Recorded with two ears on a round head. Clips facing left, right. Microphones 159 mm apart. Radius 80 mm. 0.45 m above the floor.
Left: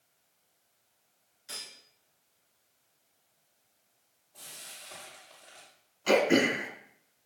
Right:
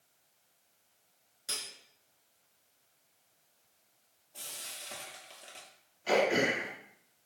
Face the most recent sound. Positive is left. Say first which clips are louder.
# left 4 dB
turn(degrees=85)